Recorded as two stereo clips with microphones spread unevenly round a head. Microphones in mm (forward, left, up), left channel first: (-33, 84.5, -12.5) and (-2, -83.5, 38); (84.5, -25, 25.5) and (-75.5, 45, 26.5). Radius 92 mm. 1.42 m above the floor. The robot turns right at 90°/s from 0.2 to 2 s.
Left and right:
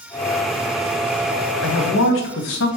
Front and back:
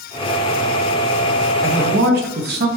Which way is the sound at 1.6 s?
85° left.